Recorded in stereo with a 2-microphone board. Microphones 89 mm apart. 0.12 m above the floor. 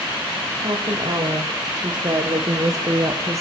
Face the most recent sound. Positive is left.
turn(degrees=-35)  # may be behind; listen again after turning